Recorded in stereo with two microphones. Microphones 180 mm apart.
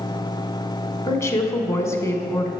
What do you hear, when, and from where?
1.1 s a woman speaking: 15° left (ahead or behind), 1.1 m